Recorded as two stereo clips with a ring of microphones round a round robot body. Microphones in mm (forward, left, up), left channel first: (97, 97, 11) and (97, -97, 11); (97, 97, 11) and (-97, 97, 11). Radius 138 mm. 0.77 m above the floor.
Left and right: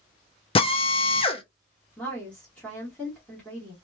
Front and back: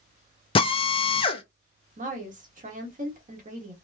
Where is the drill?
45° left, 0.7 m.